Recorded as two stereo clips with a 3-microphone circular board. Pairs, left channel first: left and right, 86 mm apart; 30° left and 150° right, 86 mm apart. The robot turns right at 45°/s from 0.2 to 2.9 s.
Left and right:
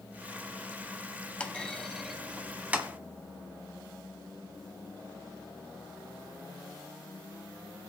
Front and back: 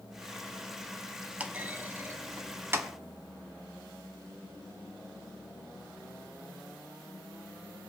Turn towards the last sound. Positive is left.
turn(degrees=-140)